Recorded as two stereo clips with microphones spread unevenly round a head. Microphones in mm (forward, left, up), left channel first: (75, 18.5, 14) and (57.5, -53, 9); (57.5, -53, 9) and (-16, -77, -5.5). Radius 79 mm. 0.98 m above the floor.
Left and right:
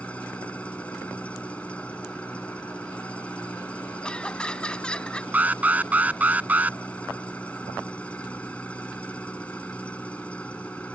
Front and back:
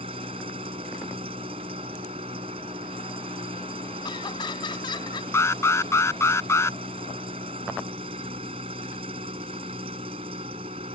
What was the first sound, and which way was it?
An engine running, 155° left.